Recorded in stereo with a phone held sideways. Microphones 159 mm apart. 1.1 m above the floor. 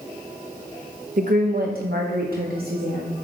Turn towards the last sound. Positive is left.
turn(degrees=-75)  # may be behind; listen again after turning